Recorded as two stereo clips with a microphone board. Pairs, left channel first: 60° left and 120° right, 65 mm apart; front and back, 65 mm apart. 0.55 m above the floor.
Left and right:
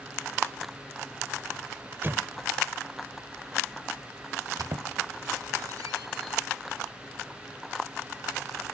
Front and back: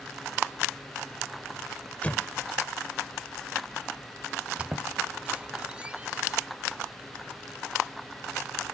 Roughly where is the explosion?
Right.